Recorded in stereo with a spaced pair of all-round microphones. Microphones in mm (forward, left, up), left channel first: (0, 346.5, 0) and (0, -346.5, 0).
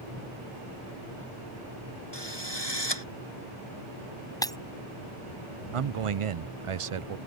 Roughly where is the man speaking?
Right.